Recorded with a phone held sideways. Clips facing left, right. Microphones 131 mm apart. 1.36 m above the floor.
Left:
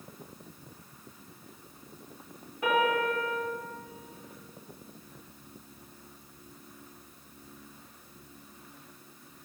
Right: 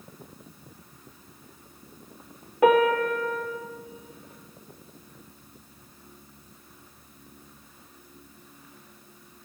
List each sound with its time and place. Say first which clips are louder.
2.6 s a piano: right 7 dB; 65° right (ahead or behind), 2 m